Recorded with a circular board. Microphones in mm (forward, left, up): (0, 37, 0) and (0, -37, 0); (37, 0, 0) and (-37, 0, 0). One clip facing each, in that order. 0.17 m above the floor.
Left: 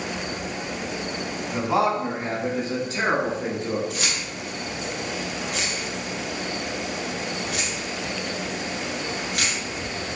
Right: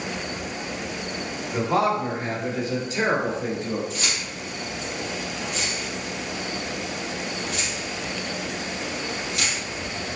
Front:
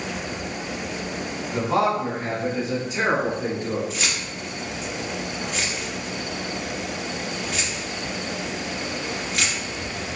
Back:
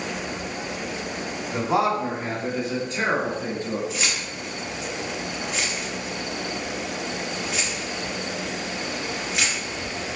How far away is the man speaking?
About 1.1 m.